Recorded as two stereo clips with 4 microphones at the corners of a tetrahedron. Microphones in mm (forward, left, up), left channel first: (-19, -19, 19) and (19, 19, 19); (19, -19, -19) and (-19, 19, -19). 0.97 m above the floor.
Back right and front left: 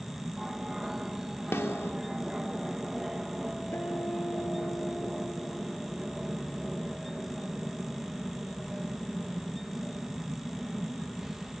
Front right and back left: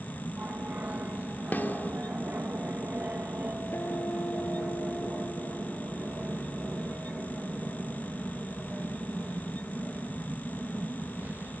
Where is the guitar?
90° right.